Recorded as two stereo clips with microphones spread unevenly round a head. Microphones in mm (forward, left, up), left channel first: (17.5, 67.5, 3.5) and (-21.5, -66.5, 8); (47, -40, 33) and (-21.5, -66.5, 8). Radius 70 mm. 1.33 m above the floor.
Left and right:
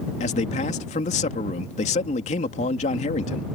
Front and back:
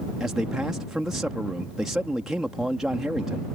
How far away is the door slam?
I don't hear a door slam.